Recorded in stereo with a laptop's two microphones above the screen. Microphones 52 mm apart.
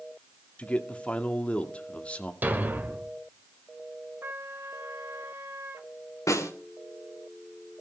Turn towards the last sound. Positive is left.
turn(degrees=75)  # may be behind; listen again after turning